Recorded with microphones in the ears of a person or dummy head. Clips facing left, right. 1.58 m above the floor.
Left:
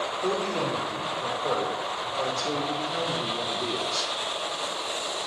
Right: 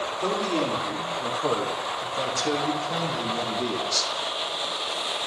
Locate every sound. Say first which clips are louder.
0.2 s a man speaking: right 2 dB; 85° right, 5 m; by 4.1 s 60° right (ahead or behind), 3 m